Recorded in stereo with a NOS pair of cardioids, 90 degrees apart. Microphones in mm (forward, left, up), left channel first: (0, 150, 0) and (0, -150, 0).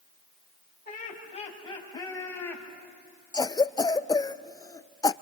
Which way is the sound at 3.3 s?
15° left.